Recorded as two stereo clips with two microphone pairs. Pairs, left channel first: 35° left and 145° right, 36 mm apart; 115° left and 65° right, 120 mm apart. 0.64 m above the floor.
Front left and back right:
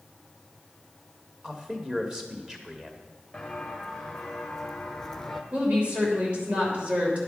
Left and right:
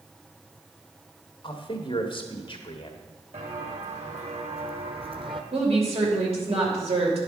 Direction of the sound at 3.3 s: 45° right.